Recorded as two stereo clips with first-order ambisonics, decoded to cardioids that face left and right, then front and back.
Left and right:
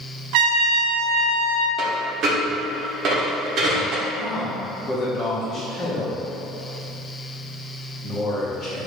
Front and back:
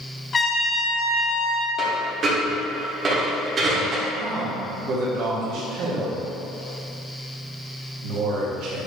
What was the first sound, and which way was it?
A trumpet, 75° right.